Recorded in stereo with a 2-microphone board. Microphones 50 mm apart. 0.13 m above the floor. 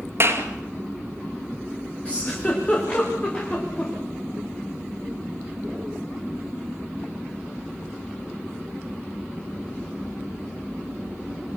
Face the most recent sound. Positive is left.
turn(degrees=25)  # may be behind; listen again after turning